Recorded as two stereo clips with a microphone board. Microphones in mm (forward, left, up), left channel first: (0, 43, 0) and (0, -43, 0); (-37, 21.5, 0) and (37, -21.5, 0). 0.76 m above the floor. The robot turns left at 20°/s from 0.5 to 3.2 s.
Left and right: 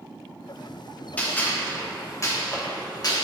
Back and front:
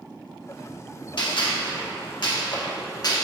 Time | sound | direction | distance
1.2 | a gunshot | 160° left | 1.3 m